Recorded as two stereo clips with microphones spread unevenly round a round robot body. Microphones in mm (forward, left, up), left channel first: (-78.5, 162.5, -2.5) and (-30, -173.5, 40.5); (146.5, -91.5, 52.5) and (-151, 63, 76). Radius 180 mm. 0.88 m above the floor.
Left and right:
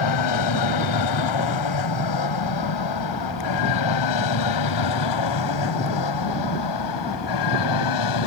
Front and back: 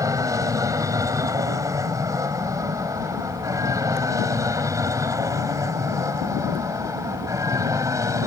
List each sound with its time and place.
0.0 s an aircraft: 70° left